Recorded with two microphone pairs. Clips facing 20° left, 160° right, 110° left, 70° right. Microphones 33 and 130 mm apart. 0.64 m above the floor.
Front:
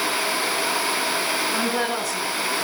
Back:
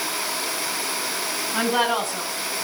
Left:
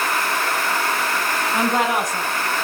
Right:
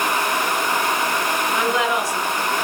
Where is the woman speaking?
155° left, 5.5 m; by 2.6 s 140° left, 6 m.